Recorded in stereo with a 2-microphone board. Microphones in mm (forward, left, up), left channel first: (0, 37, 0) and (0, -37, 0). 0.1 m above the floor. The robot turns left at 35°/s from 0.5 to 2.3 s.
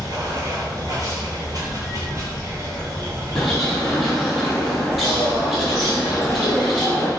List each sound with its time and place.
0.0 s running water: 65° right, 0.9 m; by 7.2 s 130° right, 0.9 m
3.4 s a bird: centre (ahead or behind), 0.9 m